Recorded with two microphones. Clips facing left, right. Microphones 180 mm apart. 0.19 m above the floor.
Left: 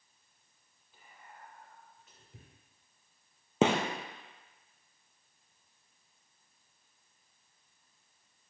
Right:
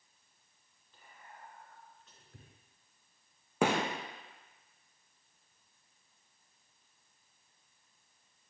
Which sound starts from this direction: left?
A gunshot, at 3.6 s.